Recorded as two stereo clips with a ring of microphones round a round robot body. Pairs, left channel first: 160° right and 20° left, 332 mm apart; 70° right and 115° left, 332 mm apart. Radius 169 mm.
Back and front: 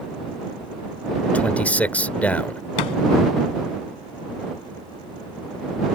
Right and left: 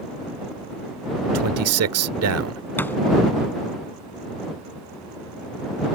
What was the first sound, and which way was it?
A man speaking, 120° left.